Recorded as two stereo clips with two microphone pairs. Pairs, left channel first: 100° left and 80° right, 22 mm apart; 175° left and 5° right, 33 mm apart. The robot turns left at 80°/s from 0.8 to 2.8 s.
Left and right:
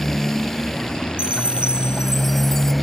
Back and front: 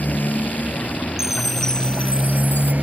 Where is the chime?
80° right; by 2.7 s 160° left.